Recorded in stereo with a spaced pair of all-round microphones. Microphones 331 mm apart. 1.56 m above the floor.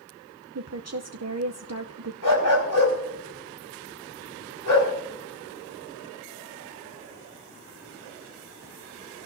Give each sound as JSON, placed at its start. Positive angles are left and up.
{"t": 0.6, "sound": "a woman speaking", "side_deg": -50, "distance_m": 0.7}
{"t": 2.2, "sound": "a dog barking", "side_deg": 70, "distance_m": 4.5}